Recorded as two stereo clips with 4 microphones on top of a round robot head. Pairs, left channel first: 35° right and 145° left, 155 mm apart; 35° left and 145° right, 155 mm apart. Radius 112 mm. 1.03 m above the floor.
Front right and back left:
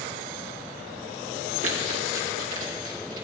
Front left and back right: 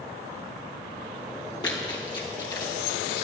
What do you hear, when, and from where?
1.6 s running footsteps: 100° left, 1.9 m; by 3.2 s 105° left, 3 m